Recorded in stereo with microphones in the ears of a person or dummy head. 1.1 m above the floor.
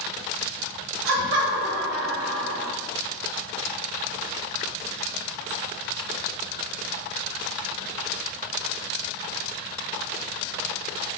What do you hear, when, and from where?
1.1 s laughter: 60° right (ahead or behind), 1.4 m